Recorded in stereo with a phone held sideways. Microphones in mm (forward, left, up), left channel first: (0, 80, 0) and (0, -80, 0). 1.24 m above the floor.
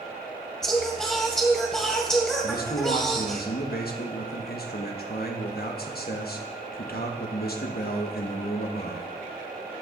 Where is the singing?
5° left (ahead or behind), 2 m.